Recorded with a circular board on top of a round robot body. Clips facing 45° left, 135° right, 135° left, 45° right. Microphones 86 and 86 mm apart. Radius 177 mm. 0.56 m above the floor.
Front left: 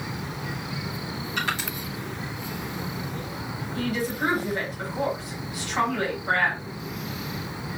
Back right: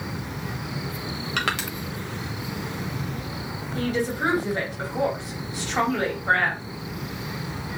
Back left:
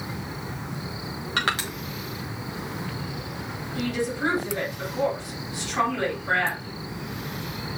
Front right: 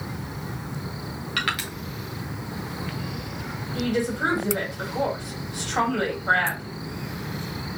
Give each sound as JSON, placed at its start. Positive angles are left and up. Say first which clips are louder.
{"t": 1.4, "sound": "crushing", "louder": "back right 2 dB, back left 2 dB", "azimuth_deg": -165, "distance_m": 0.8}
{"t": 3.8, "sound": "a woman speaking", "louder": "back right 2 dB, front right 2 dB", "azimuth_deg": -80, "distance_m": 3.5}